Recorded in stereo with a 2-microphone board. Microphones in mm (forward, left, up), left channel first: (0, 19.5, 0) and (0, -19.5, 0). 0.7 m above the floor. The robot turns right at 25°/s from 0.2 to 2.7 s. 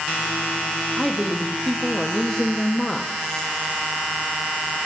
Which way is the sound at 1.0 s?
Centre (ahead or behind).